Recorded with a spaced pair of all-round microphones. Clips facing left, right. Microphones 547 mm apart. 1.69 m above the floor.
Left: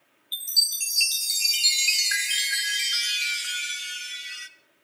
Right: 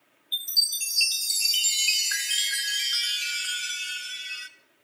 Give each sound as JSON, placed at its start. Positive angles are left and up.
{"t": 0.3, "sound": "a chime", "side_deg": 45, "distance_m": 0.7}